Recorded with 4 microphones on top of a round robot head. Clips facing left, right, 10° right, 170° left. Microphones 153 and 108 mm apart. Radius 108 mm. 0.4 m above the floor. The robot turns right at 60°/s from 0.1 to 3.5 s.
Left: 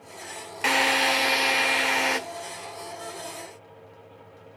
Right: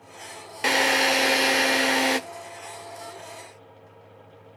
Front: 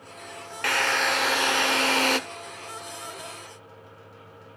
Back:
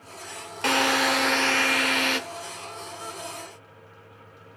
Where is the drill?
130° right, 1.5 m; by 2.2 s 35° right, 1.5 m.